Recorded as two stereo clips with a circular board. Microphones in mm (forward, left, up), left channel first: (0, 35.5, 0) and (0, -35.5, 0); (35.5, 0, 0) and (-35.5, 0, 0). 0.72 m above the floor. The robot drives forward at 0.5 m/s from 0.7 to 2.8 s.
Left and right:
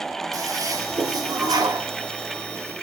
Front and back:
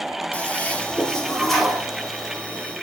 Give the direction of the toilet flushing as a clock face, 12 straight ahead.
2 o'clock.